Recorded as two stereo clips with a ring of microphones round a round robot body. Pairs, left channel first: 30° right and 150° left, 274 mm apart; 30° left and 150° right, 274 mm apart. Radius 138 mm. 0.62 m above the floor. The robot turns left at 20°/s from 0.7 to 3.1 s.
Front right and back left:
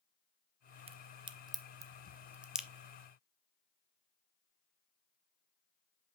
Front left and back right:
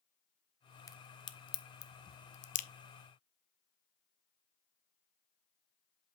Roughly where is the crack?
Left.